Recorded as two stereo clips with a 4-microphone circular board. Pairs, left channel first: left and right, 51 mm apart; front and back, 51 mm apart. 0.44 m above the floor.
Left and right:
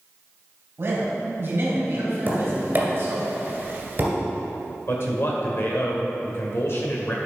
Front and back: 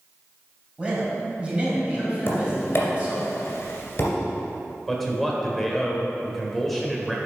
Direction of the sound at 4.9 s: 85° left.